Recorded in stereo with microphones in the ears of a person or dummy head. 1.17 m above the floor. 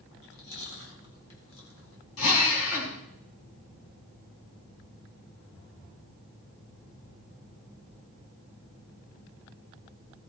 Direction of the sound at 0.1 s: 85° left.